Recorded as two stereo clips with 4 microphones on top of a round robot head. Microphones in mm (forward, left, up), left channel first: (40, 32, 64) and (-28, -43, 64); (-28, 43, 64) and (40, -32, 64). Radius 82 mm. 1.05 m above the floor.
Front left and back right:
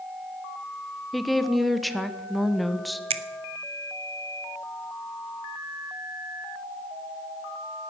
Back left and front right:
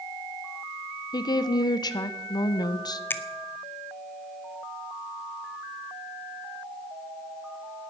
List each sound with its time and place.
1.1 s a woman speaking: 140° left, 0.8 m
3.1 s a finger snap: 155° right, 0.8 m